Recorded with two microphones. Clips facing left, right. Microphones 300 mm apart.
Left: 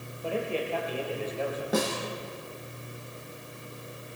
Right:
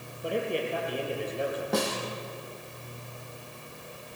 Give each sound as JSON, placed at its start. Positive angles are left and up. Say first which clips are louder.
{"t": 0.2, "sound": "a man speaking", "louder": "right 1 dB", "side_deg": -15, "distance_m": 6.0}
{"t": 1.7, "sound": "a snare drum", "louder": "left 2 dB", "side_deg": 5, "distance_m": 4.0}